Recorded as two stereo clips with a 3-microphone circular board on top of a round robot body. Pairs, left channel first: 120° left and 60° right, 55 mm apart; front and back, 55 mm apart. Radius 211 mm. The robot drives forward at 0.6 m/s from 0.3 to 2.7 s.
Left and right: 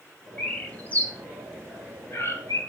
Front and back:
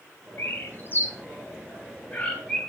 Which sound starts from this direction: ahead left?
A bird, at 0.4 s.